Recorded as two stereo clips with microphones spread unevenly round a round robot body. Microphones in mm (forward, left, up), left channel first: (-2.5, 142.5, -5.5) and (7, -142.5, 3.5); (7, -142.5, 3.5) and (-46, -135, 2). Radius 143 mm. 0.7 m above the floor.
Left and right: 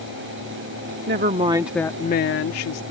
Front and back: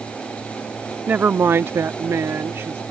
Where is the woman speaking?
140° right; by 2.8 s 115° left.